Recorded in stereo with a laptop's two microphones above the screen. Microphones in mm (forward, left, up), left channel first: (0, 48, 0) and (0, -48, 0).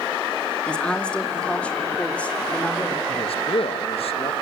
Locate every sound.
0.7 s a woman speaking: 10° left (ahead or behind), 2 m; by 3.0 s 15° left (ahead or behind), 4 m
3.1 s a man speaking: 65° left (ahead or behind), 1.4 m